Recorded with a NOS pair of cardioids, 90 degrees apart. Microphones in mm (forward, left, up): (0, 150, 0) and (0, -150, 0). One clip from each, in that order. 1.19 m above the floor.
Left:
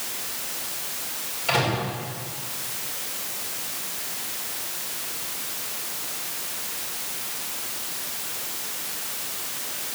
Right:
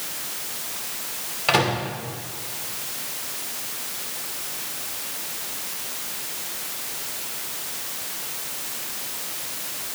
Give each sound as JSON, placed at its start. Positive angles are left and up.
{"t": 1.5, "sound": "a microwave", "azimuth_deg": -50, "distance_m": 3.0}